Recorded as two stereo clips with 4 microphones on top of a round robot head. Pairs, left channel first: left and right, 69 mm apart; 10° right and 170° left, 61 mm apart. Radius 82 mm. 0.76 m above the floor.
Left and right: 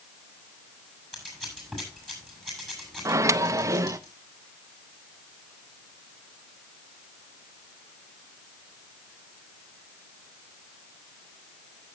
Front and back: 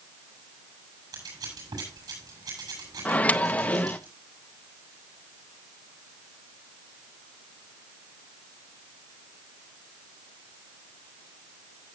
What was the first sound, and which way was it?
Scissors, 175° left.